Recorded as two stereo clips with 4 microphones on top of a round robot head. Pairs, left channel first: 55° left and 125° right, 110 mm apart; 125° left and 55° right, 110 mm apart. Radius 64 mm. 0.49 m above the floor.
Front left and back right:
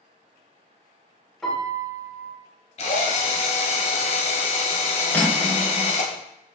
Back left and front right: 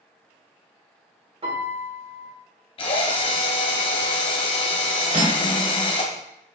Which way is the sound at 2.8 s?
85° left.